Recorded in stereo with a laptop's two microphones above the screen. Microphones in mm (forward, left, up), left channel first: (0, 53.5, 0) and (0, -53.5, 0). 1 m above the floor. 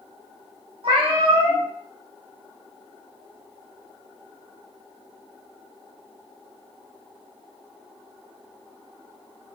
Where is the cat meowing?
50° right (ahead or behind), 0.8 m.